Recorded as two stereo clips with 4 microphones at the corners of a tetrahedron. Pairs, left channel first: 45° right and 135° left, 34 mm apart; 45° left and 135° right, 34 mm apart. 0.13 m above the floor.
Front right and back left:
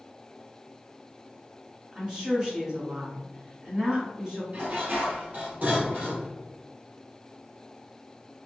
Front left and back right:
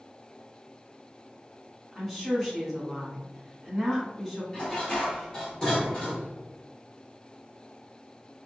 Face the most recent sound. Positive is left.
turn(degrees=115)